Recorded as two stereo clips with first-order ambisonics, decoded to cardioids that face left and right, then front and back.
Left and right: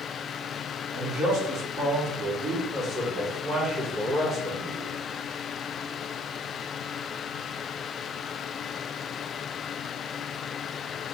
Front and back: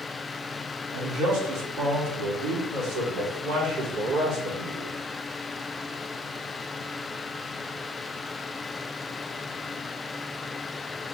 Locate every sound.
0.9 s a man speaking: 130° right, 1.9 m; by 5.0 s 155° right, 4 m